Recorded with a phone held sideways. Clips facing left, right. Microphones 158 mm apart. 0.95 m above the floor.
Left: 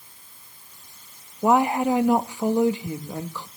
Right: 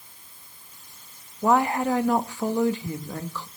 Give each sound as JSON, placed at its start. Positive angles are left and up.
{"t": 1.4, "sound": "a woman speaking", "side_deg": 15, "distance_m": 0.9}